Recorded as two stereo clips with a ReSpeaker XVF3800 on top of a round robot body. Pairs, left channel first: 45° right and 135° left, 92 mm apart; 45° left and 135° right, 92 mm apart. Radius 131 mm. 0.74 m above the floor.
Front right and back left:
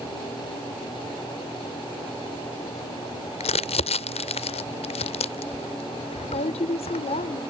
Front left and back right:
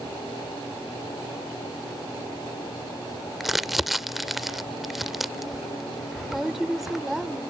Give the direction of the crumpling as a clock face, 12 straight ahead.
2 o'clock.